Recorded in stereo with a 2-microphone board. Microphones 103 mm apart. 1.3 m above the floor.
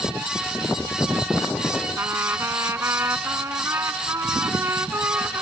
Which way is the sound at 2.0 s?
25° right (ahead or behind).